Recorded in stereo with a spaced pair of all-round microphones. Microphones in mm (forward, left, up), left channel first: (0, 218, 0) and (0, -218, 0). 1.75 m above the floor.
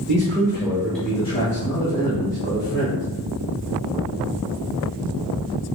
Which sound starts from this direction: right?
A man speaking, at 0.1 s.